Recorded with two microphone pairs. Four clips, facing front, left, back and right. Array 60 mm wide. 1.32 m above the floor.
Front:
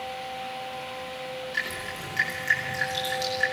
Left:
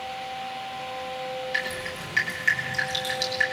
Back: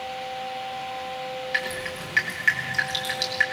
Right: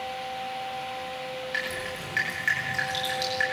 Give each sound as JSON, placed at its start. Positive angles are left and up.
{"t": 1.5, "sound": "dripping", "azimuth_deg": -165, "distance_m": 9.5}